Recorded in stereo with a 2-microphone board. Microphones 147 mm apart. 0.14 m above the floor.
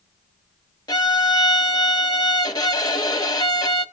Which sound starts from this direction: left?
A violin, at 0.9 s.